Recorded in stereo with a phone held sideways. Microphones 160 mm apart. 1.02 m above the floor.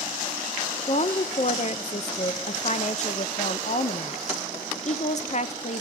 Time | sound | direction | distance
0.9 | a woman speaking | 50° left (ahead or behind) | 0.6 m